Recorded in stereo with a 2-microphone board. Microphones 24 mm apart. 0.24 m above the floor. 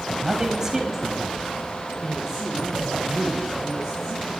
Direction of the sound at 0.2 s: 20° right (ahead or behind).